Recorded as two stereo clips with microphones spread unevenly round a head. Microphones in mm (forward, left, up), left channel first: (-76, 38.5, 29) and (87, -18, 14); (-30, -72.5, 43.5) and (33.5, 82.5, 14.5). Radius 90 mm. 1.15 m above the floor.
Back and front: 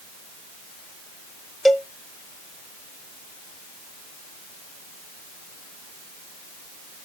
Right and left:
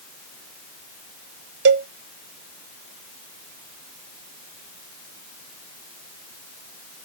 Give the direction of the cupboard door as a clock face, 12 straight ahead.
No cupboard door in this recording.